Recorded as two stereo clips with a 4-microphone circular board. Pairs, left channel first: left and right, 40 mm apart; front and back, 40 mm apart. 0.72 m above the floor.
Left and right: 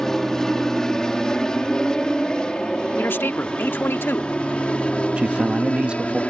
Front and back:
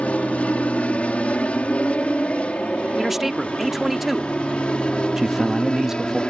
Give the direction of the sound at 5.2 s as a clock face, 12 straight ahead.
4 o'clock.